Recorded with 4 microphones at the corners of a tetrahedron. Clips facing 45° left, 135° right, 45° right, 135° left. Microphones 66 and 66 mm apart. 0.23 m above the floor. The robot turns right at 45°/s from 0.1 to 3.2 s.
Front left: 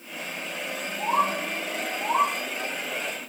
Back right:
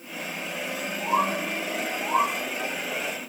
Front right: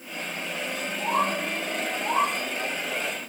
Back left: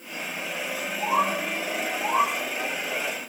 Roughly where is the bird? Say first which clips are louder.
Front left 1 dB, back left 1 dB; left.